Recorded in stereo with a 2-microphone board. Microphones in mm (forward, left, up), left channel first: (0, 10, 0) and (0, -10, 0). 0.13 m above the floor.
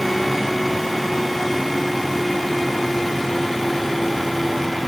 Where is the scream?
I don't hear a scream.